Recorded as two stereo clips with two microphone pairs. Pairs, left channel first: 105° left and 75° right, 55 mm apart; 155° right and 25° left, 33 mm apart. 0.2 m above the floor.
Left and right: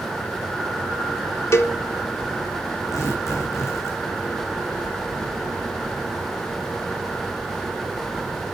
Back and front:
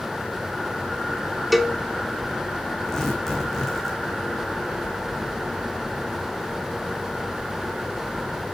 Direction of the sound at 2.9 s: 130° left.